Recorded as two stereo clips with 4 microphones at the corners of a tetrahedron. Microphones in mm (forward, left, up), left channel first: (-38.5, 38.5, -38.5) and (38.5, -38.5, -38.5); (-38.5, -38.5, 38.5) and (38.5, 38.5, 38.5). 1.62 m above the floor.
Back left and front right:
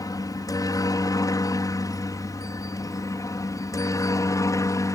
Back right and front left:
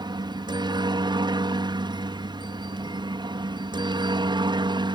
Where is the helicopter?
85° left; by 5.0 s 80° left.